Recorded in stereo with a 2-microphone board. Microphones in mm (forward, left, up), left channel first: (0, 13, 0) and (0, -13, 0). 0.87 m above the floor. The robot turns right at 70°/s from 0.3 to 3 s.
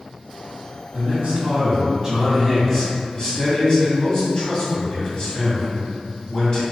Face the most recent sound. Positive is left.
turn(degrees=50)